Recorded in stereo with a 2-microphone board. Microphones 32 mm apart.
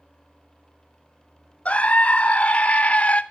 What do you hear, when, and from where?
1.6 s a scream: 45° left (ahead or behind), 0.8 m